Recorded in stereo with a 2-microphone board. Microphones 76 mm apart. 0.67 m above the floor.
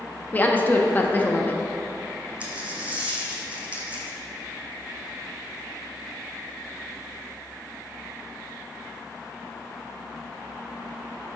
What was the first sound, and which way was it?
A woman speaking, 25° left (ahead or behind).